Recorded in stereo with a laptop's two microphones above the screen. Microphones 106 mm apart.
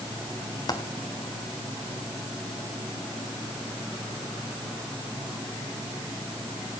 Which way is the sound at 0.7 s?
40° left (ahead or behind).